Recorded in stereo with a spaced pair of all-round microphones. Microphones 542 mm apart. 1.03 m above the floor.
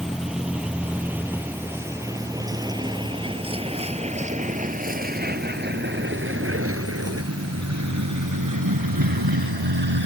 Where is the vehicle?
Centre (ahead or behind); by 10.1 s 45° right (ahead or behind).